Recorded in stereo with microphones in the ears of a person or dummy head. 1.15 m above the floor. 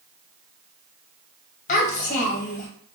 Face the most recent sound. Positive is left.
turn(degrees=45)  # may be behind; listen again after turning